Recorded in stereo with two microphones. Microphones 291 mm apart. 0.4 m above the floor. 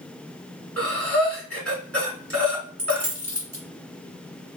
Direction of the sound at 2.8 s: 60° right (ahead or behind).